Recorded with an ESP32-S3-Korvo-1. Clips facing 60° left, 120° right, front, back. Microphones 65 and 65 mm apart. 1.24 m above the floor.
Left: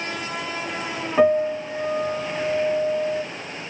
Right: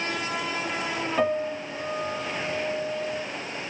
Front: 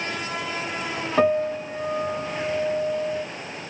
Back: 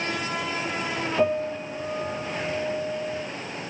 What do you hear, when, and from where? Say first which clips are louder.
1.2 s a piano: left 9 dB, front 5 dB; 5° right, 2.5 m